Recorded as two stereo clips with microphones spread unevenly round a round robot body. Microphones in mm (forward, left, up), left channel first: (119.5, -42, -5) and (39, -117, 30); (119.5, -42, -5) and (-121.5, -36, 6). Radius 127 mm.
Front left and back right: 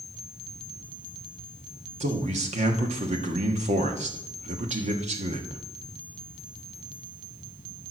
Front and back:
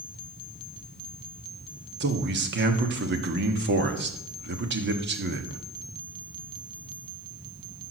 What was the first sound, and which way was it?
A man speaking, 155° right.